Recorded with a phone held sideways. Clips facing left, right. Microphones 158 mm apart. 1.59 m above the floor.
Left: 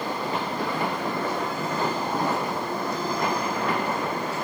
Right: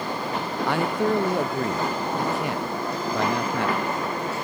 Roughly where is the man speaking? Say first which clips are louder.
Right 5 dB; right.